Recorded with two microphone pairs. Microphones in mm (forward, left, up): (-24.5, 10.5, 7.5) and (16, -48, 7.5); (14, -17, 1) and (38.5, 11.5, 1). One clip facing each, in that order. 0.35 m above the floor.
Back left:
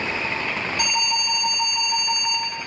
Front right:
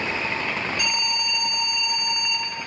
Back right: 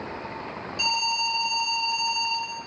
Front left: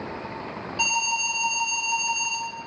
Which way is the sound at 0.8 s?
105° left.